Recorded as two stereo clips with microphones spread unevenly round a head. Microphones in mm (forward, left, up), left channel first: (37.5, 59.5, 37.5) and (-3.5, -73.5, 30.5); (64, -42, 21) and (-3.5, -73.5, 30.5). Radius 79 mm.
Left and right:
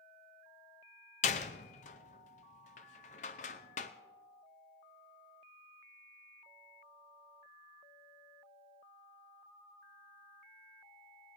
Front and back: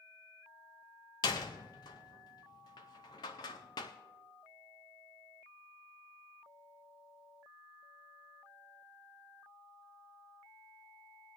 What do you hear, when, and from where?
1.2 s a door slam: 70° left, 0.5 m